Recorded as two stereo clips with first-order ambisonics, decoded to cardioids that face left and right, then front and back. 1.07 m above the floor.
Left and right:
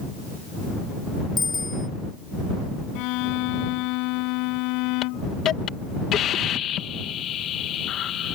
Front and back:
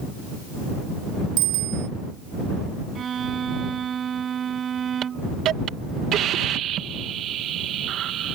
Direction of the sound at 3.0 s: 115° left.